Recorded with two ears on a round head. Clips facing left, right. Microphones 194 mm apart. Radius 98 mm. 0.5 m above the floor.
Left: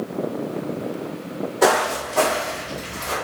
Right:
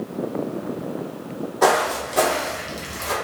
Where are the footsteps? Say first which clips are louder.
Even; 10° left (ahead or behind), 1.1 m; by 3.1 s 50° right (ahead or behind), 1.5 m.